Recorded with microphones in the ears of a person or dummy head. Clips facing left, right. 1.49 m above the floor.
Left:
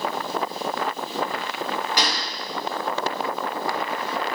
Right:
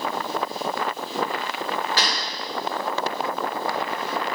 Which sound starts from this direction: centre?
A gunshot, at 2.0 s.